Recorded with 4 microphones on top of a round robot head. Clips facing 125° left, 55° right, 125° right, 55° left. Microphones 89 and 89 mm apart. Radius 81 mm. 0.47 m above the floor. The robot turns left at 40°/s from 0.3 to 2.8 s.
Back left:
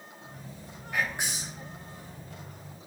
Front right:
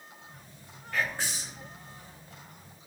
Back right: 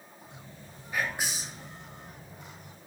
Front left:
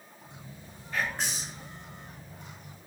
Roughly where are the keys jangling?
I don't hear keys jangling.